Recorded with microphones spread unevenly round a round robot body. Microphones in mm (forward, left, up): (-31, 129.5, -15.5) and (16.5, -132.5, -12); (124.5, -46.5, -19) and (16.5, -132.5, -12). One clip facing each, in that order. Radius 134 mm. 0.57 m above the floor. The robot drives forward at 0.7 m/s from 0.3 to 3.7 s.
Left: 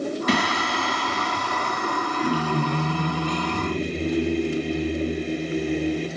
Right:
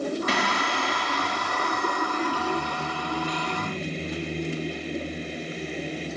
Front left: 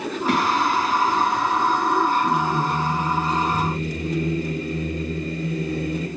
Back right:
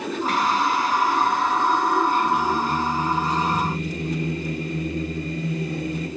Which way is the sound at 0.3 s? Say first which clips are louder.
Left 4 dB, front left 2 dB; 105° left.